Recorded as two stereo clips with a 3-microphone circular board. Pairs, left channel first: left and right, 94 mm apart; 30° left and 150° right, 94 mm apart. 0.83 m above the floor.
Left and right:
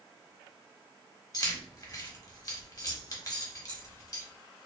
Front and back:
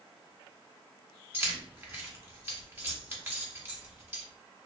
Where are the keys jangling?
140° left, 0.9 m.